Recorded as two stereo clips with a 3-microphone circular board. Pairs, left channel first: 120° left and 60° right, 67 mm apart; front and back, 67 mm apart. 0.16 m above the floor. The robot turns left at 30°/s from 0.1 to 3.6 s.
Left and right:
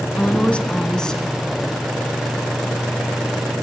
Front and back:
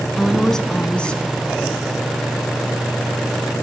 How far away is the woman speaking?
About 1.2 m.